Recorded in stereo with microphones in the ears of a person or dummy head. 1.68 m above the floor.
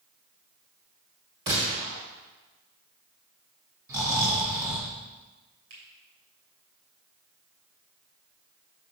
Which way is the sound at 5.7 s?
60° right (ahead or behind).